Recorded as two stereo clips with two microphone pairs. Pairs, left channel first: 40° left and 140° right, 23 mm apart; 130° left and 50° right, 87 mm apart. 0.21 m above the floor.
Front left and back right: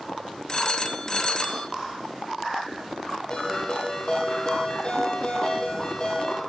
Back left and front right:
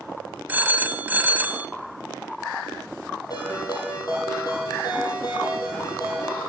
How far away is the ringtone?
About 2.5 m.